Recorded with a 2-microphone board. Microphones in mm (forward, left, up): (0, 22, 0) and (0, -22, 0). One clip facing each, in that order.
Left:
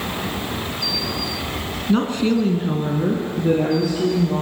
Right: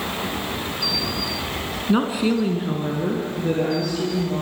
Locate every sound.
1.9 s a woman speaking: 15° right (ahead or behind), 1.0 m; by 4.4 s 10° left (ahead or behind), 3 m